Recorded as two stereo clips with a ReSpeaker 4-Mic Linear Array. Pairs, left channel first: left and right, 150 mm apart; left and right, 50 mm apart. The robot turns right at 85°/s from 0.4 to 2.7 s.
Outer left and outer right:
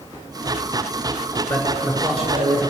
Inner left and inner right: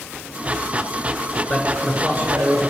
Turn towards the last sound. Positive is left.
turn(degrees=-90)